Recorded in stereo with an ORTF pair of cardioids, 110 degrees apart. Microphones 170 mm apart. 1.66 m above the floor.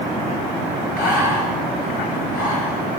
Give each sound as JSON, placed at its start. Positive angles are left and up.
{"t": 1.0, "sound": "breathing", "azimuth_deg": 60, "distance_m": 2.0}